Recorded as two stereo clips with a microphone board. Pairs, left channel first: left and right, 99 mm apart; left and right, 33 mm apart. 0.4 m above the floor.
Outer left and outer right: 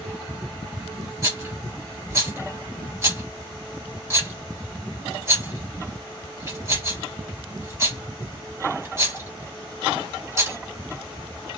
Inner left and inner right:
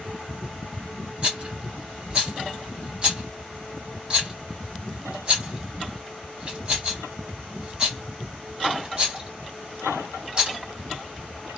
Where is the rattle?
30° right (ahead or behind), 1.6 m.